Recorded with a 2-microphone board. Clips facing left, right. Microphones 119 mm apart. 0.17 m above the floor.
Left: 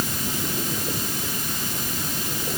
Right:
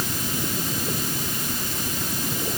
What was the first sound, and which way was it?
Only background noise.